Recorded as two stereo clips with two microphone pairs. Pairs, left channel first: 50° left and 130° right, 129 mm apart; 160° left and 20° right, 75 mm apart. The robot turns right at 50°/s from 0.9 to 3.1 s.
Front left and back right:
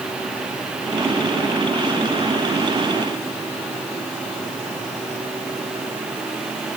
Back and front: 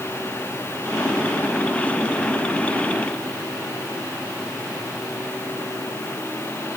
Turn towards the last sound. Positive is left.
No sound to turn to.